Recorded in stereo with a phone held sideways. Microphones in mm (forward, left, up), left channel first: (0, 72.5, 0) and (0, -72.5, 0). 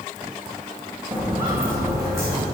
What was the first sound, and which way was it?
Footsteps, 10° right (ahead or behind).